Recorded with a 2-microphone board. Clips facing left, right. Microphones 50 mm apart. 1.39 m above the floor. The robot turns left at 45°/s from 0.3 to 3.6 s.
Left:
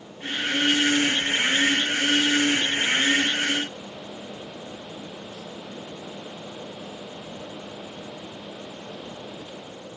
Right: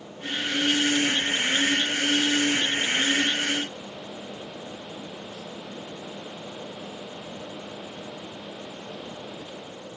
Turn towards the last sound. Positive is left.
No sound to turn to.